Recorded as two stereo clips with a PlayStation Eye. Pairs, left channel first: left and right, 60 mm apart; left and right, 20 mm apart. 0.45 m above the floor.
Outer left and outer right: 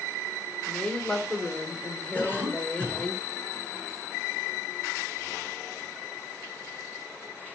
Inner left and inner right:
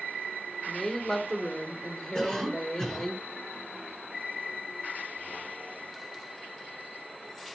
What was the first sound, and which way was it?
A woman speaking, 15° left (ahead or behind).